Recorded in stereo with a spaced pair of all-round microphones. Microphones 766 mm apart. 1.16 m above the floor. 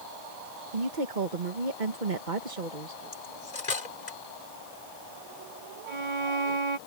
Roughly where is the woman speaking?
Right.